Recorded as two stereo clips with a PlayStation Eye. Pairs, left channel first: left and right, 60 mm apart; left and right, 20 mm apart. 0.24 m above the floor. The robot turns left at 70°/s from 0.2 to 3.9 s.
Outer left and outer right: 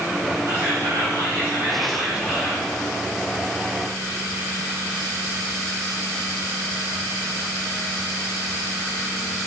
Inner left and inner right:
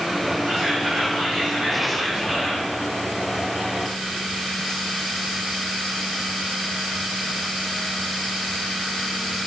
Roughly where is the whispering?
Ahead right.